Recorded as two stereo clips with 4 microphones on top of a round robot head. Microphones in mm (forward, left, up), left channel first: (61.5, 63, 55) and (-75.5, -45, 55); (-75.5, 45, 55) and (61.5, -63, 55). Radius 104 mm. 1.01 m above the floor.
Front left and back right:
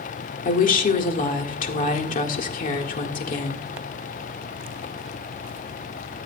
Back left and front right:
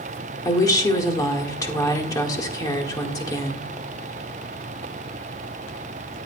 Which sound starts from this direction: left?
A woman speaking, at 0.5 s.